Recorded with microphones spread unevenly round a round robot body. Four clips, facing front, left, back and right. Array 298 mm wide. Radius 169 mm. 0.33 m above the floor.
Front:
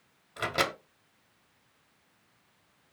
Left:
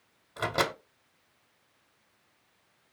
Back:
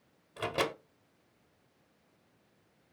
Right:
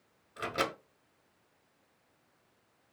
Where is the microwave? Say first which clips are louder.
Left 4 dB, front 2 dB; 60° left, 0.8 m.